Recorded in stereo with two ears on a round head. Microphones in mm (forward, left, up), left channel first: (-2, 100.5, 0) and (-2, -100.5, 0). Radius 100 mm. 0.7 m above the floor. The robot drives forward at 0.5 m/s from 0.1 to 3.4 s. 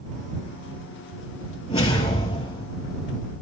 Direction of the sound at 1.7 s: 25° left (ahead or behind).